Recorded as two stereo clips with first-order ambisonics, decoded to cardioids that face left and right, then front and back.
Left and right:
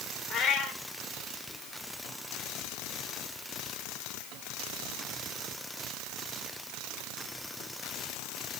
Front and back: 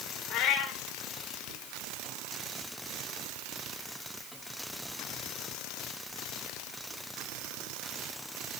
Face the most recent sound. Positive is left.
turn(degrees=35)